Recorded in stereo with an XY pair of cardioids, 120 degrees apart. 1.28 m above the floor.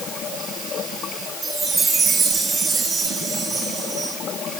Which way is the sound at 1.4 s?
40° right.